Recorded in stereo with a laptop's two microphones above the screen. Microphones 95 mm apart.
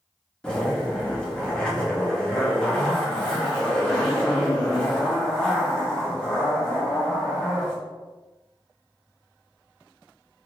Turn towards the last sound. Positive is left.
turn(degrees=10)  # may be behind; listen again after turning